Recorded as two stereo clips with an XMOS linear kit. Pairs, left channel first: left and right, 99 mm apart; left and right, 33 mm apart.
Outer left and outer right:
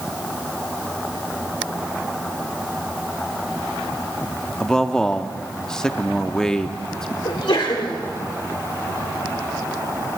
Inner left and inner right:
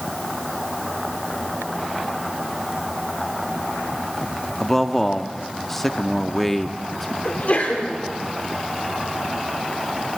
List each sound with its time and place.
4.6 s a man speaking: 5° left (ahead or behind), 0.7 m
7.2 s a sneeze: 55° left (ahead or behind), 1.7 m